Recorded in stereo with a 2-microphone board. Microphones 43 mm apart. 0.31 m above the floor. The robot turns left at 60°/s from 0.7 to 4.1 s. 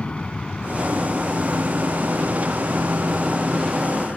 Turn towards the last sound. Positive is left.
turn(degrees=20)  # may be behind; listen again after turning